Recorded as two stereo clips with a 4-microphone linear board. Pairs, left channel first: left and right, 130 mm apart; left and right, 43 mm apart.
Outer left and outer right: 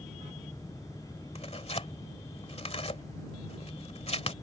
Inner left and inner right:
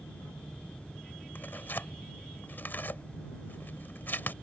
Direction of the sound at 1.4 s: 50° left (ahead or behind).